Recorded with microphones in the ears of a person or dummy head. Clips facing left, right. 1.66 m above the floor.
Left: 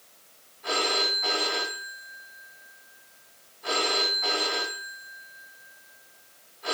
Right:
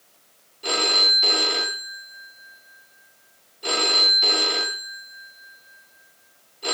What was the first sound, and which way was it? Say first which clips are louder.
A phone ringing: right 2 dB; 35° right (ahead or behind).